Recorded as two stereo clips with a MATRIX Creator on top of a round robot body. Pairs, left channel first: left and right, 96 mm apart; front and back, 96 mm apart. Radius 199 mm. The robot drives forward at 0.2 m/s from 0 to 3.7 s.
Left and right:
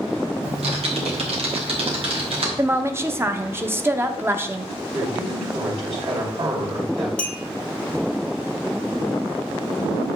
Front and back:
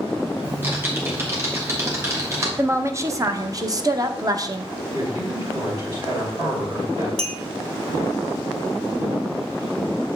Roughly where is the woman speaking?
Behind right.